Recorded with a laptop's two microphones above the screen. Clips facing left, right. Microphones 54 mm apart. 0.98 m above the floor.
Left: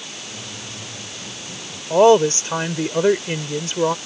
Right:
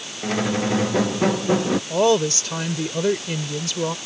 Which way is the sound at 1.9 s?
30° left (ahead or behind).